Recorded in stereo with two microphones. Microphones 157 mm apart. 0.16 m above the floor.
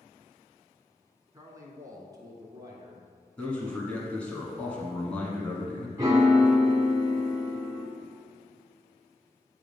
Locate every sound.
1.3 s a man speaking: 20° right (ahead or behind), 1.2 m; by 3.0 s 25° right (ahead or behind), 1.9 m
3.4 s a man speaking: 5° left (ahead or behind), 1.3 m
6.0 s a piano: 20° right (ahead or behind), 1.5 m